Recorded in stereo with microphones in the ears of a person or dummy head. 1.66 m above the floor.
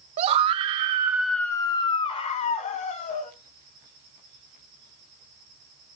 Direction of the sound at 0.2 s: 35° right (ahead or behind).